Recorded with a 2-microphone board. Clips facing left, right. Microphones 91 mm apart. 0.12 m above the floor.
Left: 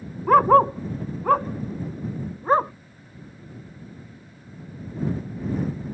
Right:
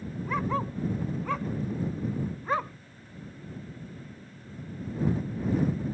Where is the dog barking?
60° left (ahead or behind); by 2.7 s 35° left (ahead or behind).